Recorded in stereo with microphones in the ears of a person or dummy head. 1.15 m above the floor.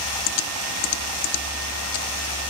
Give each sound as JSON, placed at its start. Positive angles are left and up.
{"t": 0.3, "sound": "typing on a keyboard", "side_deg": 80}